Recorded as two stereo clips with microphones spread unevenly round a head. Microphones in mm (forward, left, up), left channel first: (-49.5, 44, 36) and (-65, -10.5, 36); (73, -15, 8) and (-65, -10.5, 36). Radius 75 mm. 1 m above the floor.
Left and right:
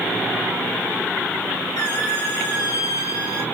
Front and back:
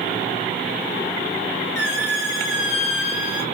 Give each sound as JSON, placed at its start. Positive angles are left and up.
{"t": 1.8, "sound": "a squeak", "azimuth_deg": 5, "distance_m": 2.5}